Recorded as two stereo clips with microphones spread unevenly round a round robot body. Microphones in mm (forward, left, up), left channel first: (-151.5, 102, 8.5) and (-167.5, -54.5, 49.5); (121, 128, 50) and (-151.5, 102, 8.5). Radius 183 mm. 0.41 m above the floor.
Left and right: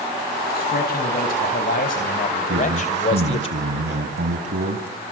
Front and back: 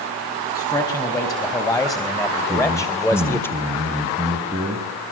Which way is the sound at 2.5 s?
95° right.